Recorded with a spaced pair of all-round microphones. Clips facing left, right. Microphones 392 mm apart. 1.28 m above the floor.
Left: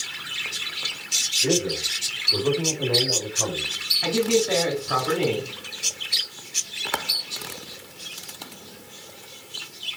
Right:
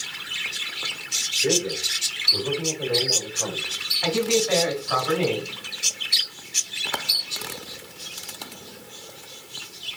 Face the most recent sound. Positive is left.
turn(degrees=45)  # may be behind; listen again after turning